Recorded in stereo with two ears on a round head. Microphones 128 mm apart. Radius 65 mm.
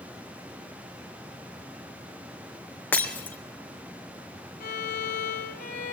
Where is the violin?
75° left (ahead or behind), 3.5 m.